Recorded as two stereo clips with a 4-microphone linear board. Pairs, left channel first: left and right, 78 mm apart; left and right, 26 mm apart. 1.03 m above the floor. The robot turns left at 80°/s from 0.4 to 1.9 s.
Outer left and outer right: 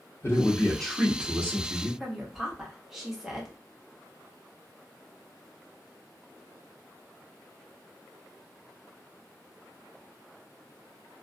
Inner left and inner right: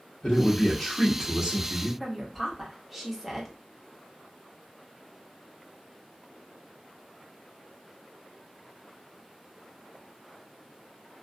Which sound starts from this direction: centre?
A woman speaking, at 2.0 s.